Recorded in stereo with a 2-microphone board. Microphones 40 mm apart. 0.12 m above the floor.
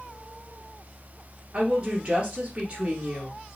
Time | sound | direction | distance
1.5 | a woman speaking | 30° right (ahead or behind) | 2 m